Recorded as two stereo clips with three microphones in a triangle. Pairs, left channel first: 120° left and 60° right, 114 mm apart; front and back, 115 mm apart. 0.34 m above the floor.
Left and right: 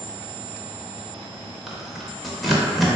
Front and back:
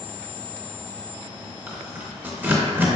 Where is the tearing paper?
150° right, 0.6 m.